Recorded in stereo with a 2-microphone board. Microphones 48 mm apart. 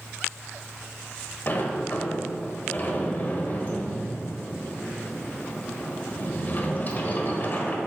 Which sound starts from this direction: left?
A sliding door, at 1.5 s.